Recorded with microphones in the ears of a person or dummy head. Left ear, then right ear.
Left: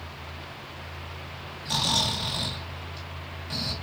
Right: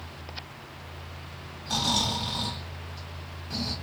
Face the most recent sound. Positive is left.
turn(degrees=45)  # may be behind; listen again after turning